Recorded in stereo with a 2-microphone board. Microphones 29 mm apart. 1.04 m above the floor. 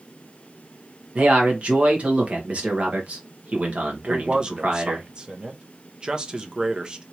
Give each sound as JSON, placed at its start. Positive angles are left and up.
{"t": 1.1, "sound": "a man speaking", "side_deg": -50, "distance_m": 1.5}
{"t": 4.1, "sound": "a man speaking", "side_deg": -30, "distance_m": 0.8}